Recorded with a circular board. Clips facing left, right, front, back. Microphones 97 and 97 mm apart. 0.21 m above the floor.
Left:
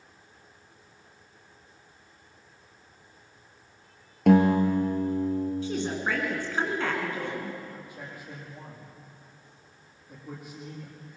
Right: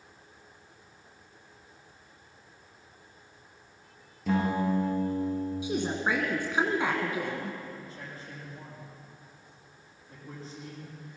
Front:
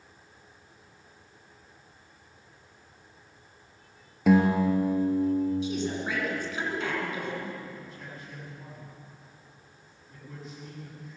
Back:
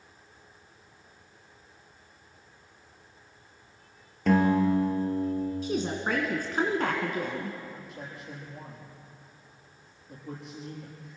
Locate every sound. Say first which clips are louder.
4.3 s a guitar: left 8 dB, front 1 dB; 80° left, 3 m
5.6 s a woman speaking: even, back 1 dB; 160° right, 2 m
7.7 s a man speaking: left 1 dB, back 1 dB; 160° left, 6.5 m